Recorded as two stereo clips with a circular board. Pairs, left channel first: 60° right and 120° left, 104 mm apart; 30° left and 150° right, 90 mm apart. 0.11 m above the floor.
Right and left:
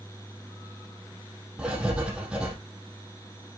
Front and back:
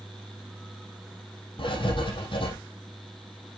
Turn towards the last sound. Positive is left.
turn(degrees=40)